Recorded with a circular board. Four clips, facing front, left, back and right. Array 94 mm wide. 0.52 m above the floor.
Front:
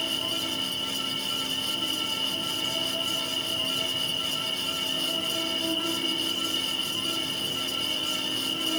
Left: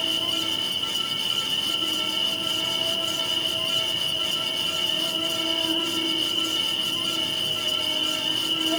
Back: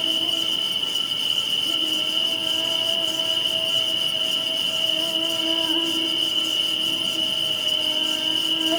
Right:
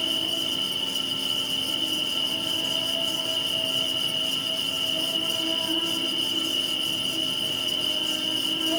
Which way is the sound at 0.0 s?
175° left.